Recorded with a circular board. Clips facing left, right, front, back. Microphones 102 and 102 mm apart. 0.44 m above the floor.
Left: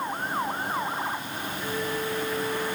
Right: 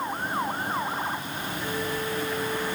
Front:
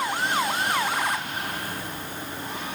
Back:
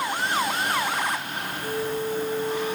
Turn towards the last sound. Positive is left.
turn(degrees=175)